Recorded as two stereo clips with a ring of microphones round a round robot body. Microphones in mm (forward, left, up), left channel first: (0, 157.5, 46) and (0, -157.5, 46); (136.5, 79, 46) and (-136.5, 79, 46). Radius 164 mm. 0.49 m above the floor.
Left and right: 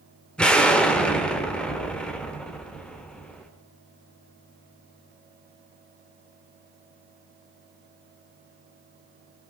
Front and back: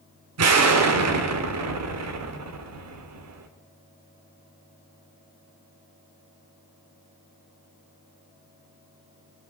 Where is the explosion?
175° left, 1.4 m.